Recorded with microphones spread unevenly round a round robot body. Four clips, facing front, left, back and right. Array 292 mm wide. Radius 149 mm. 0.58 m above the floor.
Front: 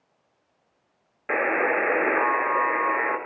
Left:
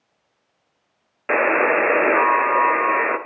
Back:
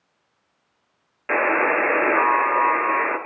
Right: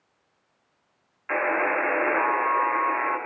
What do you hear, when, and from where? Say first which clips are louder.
1.3 s a buzzer: left 7 dB, back 3 dB; 80° left, 2.0 m